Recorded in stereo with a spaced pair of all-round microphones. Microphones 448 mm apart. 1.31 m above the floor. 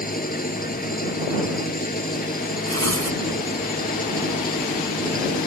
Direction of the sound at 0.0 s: 20° left (ahead or behind).